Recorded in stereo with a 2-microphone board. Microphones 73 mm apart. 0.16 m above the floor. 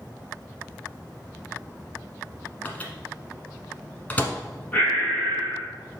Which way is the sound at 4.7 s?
20° left (ahead or behind).